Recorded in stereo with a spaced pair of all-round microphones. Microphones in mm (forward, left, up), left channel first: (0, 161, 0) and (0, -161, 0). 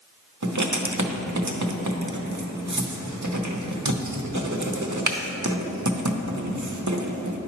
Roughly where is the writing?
Right.